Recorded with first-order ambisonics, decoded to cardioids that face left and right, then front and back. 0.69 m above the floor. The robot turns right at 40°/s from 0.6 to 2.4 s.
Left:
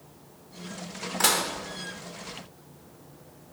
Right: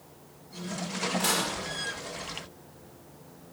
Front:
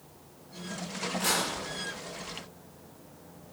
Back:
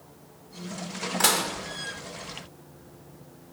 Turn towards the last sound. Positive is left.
turn(degrees=-165)